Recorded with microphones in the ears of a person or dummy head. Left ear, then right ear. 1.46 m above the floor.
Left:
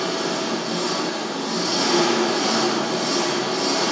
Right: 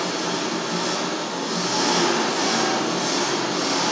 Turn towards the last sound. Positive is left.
turn(degrees=-20)  # may be behind; listen again after turning